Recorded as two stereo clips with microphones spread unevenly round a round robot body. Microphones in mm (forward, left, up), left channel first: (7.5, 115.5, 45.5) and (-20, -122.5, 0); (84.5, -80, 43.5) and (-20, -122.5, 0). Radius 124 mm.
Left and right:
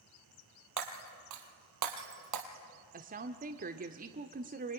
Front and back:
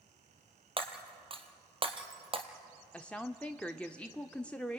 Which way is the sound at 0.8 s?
115° right.